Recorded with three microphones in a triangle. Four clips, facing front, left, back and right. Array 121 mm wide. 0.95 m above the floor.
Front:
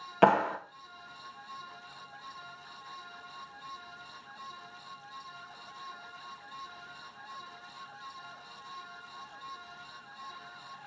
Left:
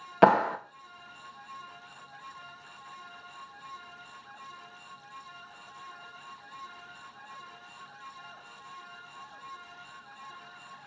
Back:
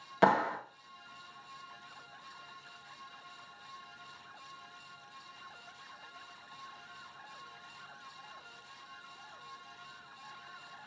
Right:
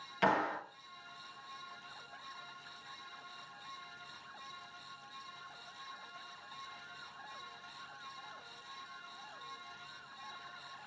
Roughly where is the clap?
Left.